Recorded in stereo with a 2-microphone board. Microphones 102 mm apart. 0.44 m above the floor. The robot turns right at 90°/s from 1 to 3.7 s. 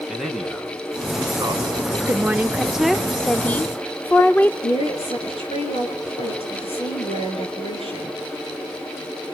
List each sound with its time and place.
0.1 s a man speaking: straight behind, 3.5 m; by 2.0 s 90° right, 3.5 m
2.1 s a woman speaking: 20° right (ahead or behind), 0.7 m; by 4.5 s 20° left (ahead or behind), 0.7 m
4.6 s a woman speaking: 80° left, 7 m